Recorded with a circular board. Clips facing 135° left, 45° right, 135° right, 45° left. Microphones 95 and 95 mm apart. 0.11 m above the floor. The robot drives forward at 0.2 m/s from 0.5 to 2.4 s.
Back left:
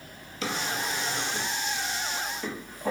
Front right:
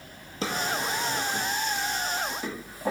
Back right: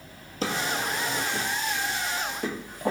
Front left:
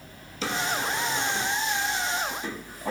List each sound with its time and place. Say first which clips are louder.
0.4 s a drawer: front right 2 dB, even; 95° right, 0.6 m; by 2.9 s 130° right, 0.7 m